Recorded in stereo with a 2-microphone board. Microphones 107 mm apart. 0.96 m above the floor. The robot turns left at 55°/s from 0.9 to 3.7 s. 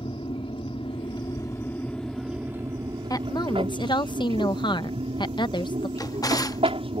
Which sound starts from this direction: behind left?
A woman speaking, at 3.1 s.